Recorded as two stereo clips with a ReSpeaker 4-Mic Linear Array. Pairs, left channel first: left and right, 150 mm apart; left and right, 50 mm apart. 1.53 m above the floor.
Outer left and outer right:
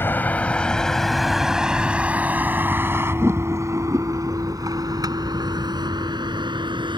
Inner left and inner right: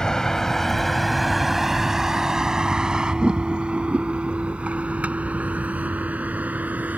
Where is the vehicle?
15° left (ahead or behind); by 7.0 s 30° right (ahead or behind).